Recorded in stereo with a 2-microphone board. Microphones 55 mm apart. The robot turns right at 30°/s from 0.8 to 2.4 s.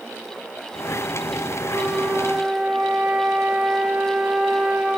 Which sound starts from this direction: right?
A flute, at 1.7 s.